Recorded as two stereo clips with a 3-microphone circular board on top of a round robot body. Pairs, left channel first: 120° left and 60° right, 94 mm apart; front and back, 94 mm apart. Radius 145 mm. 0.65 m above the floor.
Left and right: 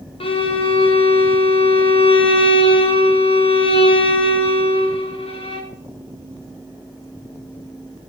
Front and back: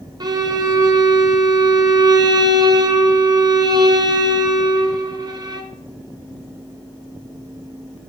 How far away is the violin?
About 0.7 m.